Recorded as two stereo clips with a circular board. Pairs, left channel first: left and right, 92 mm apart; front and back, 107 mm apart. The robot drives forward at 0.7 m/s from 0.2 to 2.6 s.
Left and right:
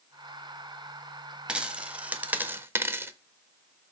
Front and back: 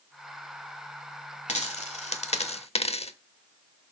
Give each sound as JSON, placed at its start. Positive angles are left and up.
{"t": 1.5, "sound": "a dropped coin", "azimuth_deg": -10, "distance_m": 1.4}